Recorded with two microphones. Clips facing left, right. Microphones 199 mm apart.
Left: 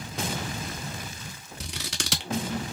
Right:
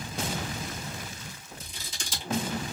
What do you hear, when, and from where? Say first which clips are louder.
1.6 s scissors: left 8 dB; 80° left, 0.7 m